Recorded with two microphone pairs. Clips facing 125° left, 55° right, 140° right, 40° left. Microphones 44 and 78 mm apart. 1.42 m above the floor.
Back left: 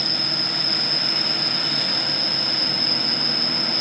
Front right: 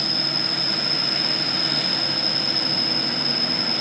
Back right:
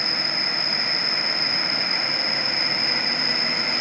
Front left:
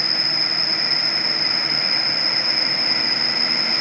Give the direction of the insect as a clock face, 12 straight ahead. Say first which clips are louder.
Even, even; 1 o'clock.